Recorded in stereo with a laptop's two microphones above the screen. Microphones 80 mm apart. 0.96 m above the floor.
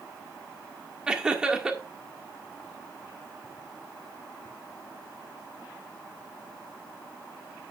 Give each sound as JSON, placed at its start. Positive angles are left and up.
{"t": 1.1, "sound": "laughter", "side_deg": -10, "distance_m": 1.9}